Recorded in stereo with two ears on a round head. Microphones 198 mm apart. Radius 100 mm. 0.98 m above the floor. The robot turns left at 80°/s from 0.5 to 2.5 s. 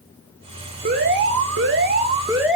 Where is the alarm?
45° right, 1.3 m; by 2.5 s 175° right, 1.3 m.